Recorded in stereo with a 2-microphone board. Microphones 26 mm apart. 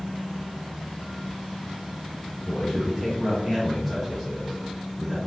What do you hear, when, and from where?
2.5 s a man speaking: 25° left (ahead or behind), 1.7 m; by 5.2 s 20° right (ahead or behind), 1.9 m